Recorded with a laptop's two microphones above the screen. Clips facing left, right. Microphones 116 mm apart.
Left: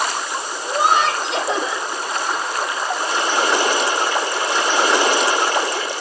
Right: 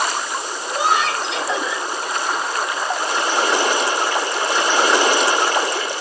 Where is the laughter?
50° left (ahead or behind), 6 m.